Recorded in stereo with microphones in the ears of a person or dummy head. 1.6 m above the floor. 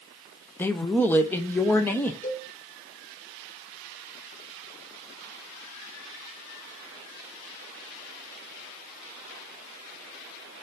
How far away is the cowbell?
About 2.5 m.